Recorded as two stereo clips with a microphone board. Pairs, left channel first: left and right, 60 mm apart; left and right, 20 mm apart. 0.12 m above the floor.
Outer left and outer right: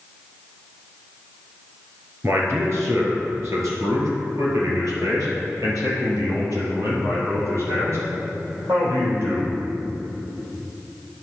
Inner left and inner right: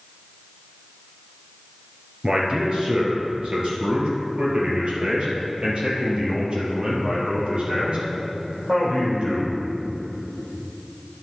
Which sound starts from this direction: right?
A man speaking, at 2.2 s.